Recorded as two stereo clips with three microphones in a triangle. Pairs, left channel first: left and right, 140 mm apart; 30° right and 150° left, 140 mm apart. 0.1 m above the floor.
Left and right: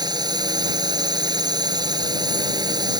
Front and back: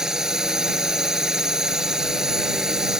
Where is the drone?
125° right.